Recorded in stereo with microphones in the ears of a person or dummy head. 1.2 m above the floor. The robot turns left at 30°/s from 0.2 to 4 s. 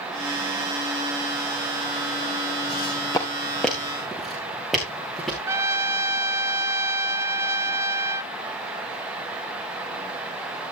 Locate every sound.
2.7 s footsteps: 35° left (ahead or behind), 3.5 m; by 5.4 s 5° left (ahead or behind), 6 m
5.5 s a trumpet: 15° right (ahead or behind), 0.6 m